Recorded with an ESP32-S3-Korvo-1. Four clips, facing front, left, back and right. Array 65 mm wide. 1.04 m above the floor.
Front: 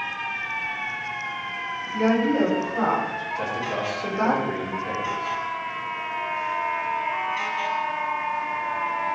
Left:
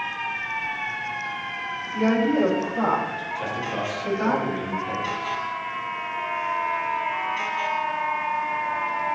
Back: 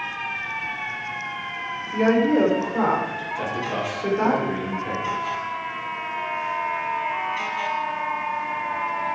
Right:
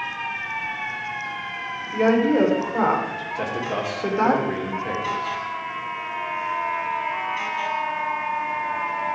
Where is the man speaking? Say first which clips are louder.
Right 3 dB, back 1 dB; 100° right, 3 m.